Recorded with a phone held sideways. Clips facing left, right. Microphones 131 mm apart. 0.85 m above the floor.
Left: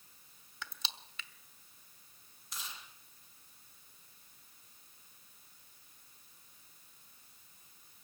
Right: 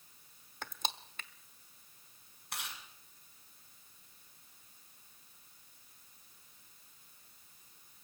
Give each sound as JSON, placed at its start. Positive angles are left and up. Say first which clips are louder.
{"t": 0.6, "sound": "crushing", "louder": "right 6 dB", "side_deg": -50, "distance_m": 1.1}
{"t": 2.5, "sound": "chewing", "louder": "right 3 dB", "side_deg": -65, "distance_m": 6.5}